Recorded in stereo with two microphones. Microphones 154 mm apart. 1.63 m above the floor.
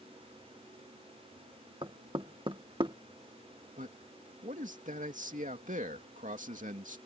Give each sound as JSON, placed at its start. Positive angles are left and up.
{"t": 1.8, "sound": "knocking", "side_deg": -35}
{"t": 3.8, "sound": "a man speaking", "side_deg": -60}